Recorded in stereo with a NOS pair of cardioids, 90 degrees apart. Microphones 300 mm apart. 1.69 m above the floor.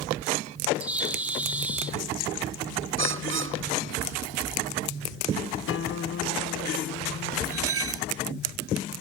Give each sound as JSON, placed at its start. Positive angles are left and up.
{"t": 0.8, "sound": "a bird", "azimuth_deg": -5}
{"t": 3.0, "sound": "a bird", "azimuth_deg": -40}
{"t": 5.7, "sound": "a guitar", "azimuth_deg": 45}
{"t": 7.5, "sound": "cutlery clinking", "azimuth_deg": -50}